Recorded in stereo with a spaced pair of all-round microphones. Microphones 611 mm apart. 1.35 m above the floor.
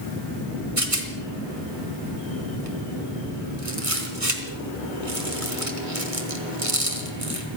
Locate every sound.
0.8 s a rattle: 60° right (ahead or behind), 3 m